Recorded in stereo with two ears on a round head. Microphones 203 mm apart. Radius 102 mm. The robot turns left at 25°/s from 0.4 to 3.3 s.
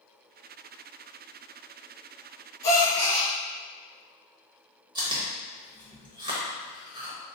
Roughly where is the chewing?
Right.